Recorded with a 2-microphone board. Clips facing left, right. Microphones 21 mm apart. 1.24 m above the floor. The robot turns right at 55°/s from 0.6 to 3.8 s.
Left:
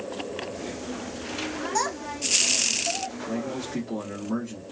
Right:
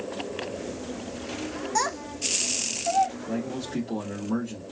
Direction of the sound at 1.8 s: 10° right (ahead or behind).